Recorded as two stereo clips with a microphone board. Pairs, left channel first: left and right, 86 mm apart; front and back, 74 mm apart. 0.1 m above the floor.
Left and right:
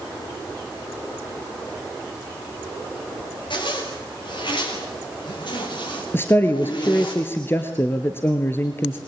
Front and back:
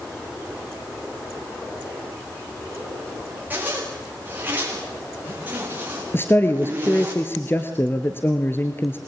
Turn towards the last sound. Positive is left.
turn(degrees=40)